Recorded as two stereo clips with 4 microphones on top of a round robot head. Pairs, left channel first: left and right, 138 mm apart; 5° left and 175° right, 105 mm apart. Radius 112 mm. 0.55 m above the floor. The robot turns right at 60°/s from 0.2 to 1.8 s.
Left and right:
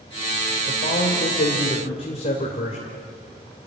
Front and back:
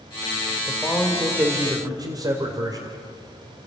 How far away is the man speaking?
About 2.5 m.